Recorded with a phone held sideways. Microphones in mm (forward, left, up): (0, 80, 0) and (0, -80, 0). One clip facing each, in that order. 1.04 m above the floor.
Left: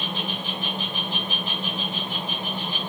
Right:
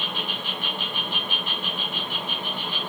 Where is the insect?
20° left (ahead or behind), 1.3 m.